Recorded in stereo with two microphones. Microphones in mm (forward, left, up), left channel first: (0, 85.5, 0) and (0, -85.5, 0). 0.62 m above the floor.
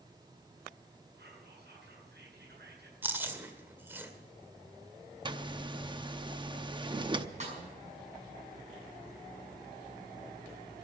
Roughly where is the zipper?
Right.